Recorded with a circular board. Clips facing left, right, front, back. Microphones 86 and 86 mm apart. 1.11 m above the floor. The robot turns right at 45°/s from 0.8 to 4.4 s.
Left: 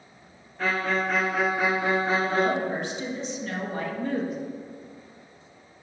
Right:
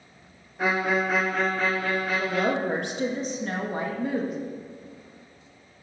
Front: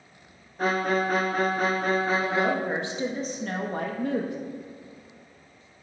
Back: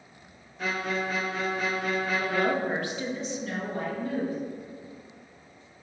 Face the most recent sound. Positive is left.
turn(degrees=5)